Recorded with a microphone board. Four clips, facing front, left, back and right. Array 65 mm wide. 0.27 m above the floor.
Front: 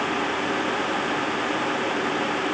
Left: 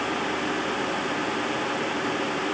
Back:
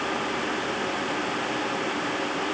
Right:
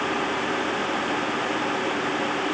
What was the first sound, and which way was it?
Only background noise.